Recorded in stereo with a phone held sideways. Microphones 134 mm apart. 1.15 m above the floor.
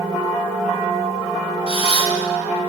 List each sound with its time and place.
1.7 s a camera shutter: 45° left (ahead or behind), 1.6 m